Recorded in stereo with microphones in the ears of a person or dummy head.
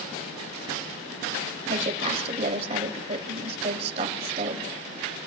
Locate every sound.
1.7 s a woman speaking: 35° right (ahead or behind), 3 m